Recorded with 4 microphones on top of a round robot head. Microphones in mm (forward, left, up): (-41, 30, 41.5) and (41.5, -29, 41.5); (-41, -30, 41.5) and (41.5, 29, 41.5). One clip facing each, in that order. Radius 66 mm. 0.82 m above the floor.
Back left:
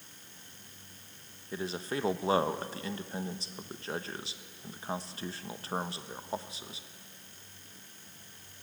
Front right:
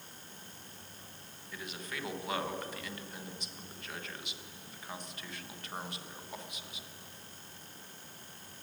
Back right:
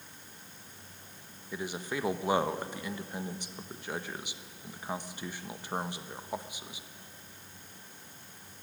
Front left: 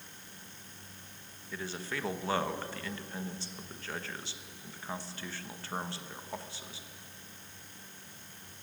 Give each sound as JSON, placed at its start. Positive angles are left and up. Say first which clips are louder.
{"t": 1.5, "sound": "a man speaking", "louder": "back left 9 dB, back right 3 dB", "azimuth_deg": 155, "distance_m": 1.1}